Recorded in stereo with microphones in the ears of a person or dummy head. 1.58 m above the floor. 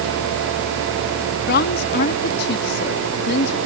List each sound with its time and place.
1.5 s a woman speaking: 55° left (ahead or behind)